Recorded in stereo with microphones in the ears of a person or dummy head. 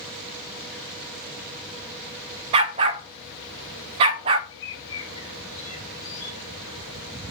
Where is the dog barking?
15° right (ahead or behind), 0.5 m.